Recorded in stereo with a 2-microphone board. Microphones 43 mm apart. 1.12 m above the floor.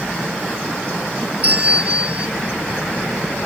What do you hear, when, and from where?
1.4 s a bell: 25° right (ahead or behind)